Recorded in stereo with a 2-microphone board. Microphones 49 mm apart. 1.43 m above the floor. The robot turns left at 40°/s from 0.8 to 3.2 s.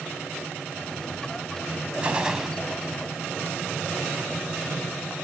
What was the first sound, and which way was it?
A gunshot, 20° right (ahead or behind).